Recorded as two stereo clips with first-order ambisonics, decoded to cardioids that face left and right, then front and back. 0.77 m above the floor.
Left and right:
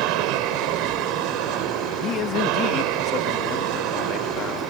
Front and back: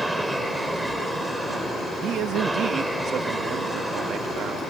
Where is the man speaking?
135° left.